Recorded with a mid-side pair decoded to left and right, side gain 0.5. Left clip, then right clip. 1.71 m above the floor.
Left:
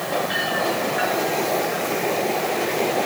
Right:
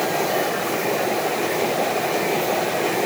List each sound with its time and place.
Only background noise.